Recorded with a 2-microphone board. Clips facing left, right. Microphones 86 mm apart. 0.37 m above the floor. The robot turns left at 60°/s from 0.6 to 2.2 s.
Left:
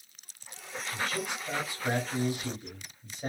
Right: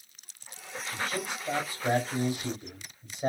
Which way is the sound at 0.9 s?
60° right.